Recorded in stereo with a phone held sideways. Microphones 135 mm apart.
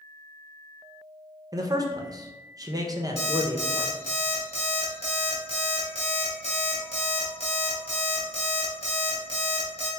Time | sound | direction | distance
1.5 | a man speaking | 25° right (ahead or behind) | 0.5 m
3.2 | an alarm clock | 50° left (ahead or behind) | 1.6 m